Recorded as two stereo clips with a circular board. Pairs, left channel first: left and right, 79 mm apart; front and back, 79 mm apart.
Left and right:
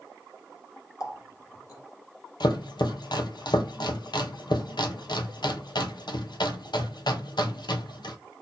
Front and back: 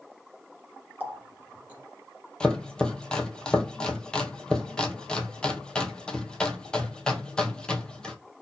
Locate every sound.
1.0 s a running tap: 115° left, 1.6 m
2.4 s chopping: 80° left, 0.7 m